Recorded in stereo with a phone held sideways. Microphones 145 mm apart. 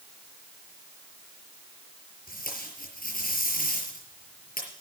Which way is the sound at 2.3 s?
85° left.